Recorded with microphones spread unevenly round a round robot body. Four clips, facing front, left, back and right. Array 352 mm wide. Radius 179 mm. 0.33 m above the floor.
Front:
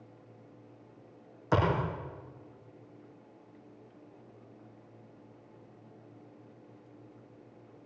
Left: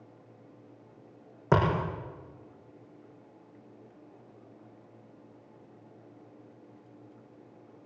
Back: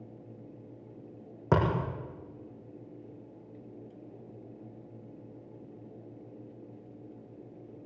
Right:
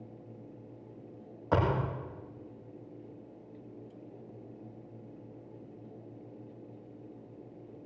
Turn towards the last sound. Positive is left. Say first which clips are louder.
# left 3 dB, back 1 dB
turn(degrees=145)